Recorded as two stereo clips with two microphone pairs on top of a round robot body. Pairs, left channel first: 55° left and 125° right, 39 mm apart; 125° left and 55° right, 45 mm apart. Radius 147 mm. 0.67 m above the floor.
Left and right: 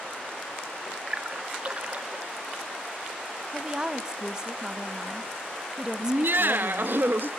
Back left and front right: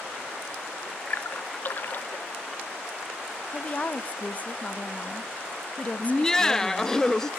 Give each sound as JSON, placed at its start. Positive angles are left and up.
{"t": 1.1, "sound": "a splash", "azimuth_deg": 180, "distance_m": 0.9}
{"t": 3.5, "sound": "a woman speaking", "azimuth_deg": 155, "distance_m": 1.1}
{"t": 6.0, "sound": "laughter", "azimuth_deg": -155, "distance_m": 1.0}